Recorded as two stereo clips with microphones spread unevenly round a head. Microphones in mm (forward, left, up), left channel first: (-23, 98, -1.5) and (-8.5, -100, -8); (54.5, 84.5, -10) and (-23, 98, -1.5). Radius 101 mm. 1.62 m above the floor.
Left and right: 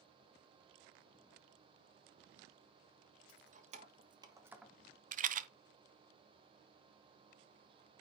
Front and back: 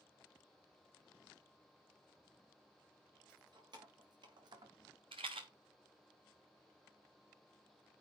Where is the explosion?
I don't hear an explosion.